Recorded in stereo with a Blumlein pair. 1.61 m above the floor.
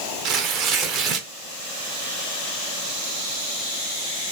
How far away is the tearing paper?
About 0.5 m.